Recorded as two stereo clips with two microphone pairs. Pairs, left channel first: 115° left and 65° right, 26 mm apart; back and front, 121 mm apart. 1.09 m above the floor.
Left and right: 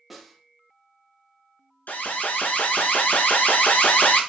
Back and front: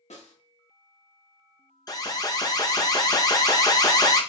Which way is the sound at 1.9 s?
120° left.